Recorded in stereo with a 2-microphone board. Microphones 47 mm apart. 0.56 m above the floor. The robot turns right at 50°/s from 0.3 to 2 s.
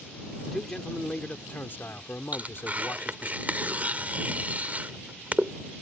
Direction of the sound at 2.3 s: 35° right (ahead or behind).